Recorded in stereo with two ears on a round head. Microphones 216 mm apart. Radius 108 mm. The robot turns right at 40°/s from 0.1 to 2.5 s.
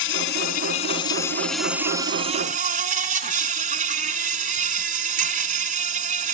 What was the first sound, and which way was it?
An insect, 120° left.